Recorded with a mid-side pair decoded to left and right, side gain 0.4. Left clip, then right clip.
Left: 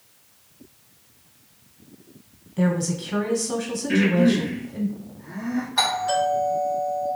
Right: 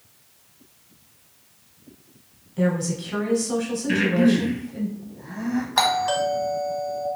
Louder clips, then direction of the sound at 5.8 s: Right 1 dB; 70° right.